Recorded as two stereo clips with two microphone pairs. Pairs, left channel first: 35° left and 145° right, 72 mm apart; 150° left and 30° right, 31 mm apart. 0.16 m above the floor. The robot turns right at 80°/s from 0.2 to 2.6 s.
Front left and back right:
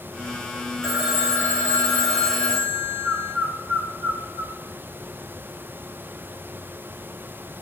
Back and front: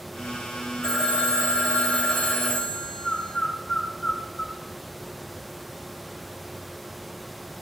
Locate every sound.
0.8 s a phone ringing: 115° left, 9 m; by 3.3 s 100° right, 9 m
3.0 s a bird: 140° right, 6 m